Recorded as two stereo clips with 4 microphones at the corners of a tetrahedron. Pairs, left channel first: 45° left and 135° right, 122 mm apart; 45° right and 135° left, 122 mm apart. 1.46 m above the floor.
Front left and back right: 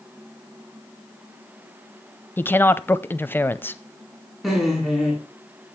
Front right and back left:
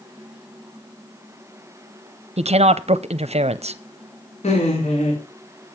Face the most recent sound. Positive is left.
turn(degrees=-45)